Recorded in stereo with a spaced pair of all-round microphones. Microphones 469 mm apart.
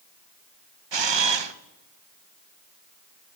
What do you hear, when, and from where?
0.9 s a camera shutter: 65° right (ahead or behind), 0.6 m